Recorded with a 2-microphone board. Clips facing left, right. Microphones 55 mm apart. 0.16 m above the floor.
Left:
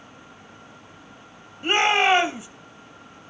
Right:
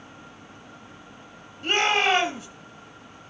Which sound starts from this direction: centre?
A shout, at 1.6 s.